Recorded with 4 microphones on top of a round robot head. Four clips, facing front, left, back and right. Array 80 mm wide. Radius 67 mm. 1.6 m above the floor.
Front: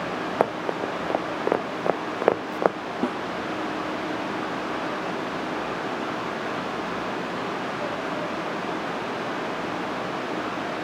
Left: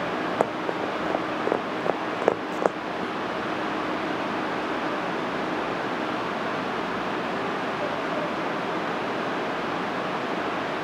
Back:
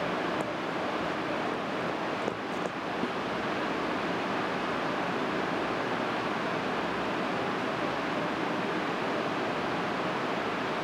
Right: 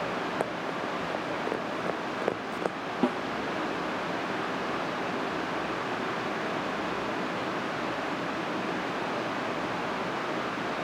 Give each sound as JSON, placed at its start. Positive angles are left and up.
{"t": 0.4, "sound": "running footsteps", "azimuth_deg": 30}
{"t": 3.0, "sound": "a snare drum", "azimuth_deg": -50}